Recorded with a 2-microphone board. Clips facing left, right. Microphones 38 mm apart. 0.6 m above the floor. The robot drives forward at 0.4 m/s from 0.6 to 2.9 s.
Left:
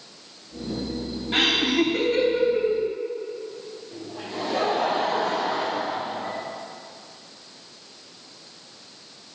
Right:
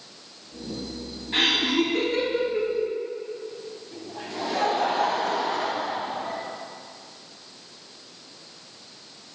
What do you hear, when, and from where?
1.3 s laughter: 75° left (ahead or behind), 3.5 m; by 2.9 s 70° left (ahead or behind), 3.5 m
3.9 s laughter: 50° left (ahead or behind), 3 m